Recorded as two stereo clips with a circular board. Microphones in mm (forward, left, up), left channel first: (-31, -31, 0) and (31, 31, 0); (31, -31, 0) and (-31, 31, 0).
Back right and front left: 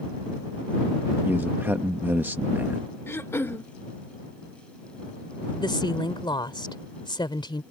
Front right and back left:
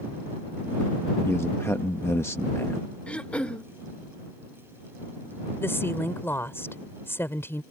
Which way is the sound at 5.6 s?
105° right.